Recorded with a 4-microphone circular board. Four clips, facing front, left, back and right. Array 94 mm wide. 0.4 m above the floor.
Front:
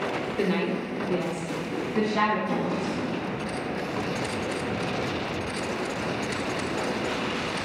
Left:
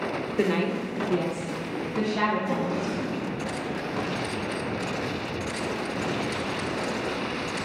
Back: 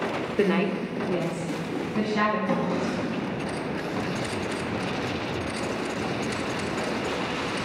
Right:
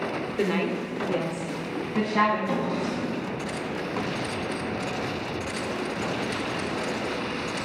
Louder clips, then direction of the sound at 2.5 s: Even, back 2 dB; 155° right.